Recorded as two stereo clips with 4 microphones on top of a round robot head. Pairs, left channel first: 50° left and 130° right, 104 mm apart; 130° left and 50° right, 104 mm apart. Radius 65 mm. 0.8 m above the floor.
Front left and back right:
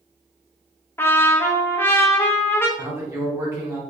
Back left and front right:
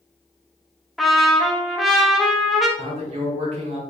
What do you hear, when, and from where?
1.0 s a trumpet: 40° left, 0.8 m
2.8 s a man speaking: 65° right, 1.8 m